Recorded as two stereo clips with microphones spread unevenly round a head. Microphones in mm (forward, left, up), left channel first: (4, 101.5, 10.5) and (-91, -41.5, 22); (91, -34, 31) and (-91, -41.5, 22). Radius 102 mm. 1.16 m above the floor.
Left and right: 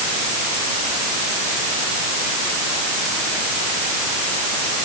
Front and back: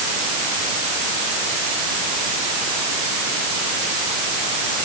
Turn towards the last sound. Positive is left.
No sound to turn to.